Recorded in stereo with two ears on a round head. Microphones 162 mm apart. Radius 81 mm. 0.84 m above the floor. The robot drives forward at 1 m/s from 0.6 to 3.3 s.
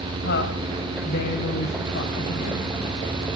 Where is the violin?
No violin in this recording.